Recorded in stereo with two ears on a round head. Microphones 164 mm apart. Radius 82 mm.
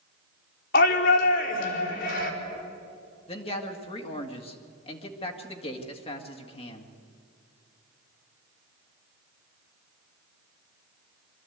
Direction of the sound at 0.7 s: 65° left (ahead or behind).